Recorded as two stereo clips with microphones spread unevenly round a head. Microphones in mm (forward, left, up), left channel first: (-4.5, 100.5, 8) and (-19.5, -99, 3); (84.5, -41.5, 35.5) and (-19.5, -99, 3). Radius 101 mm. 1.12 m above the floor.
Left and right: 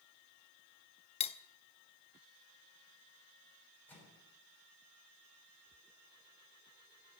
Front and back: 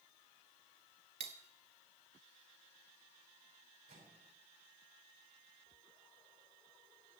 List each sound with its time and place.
1.2 s cutlery clinking: 145° left, 0.5 m
3.9 s a microwave: 165° left, 7 m